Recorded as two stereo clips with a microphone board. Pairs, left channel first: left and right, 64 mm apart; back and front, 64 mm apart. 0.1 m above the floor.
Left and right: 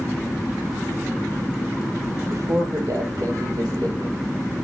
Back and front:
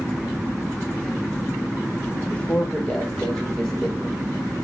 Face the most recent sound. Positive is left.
turn(degrees=-85)